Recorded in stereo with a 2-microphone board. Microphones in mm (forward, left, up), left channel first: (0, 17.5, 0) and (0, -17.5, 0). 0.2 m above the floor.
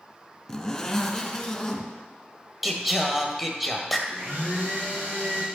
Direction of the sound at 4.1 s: 65° right (ahead or behind).